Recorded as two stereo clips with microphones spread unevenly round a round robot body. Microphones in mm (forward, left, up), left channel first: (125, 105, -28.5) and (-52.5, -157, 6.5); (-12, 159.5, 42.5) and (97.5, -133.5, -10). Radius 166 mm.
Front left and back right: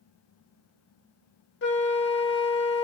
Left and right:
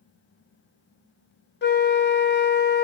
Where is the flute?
60° left, 0.7 m.